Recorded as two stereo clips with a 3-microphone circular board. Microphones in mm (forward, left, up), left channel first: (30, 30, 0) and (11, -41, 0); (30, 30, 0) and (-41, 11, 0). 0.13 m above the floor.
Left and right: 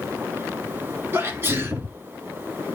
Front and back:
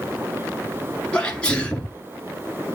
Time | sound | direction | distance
1.1 | a sneeze | 55° right | 2.0 m